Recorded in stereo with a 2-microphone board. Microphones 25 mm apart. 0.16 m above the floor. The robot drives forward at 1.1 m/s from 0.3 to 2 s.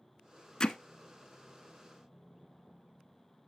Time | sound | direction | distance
0.6 | hammering | 30° left (ahead or behind) | 0.7 m